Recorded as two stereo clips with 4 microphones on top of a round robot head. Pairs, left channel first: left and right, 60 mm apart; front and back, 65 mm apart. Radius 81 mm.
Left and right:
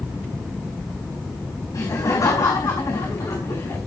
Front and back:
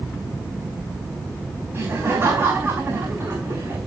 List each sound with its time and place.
1.7 s laughter: 125° left, 4 m; by 3.8 s 120° left, 5.5 m